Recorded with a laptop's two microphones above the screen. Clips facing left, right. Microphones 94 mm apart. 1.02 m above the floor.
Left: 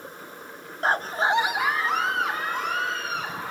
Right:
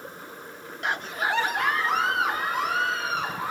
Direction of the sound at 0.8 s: 35° left (ahead or behind).